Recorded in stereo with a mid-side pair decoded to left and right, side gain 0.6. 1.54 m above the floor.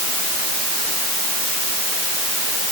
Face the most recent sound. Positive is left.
No sound to turn to.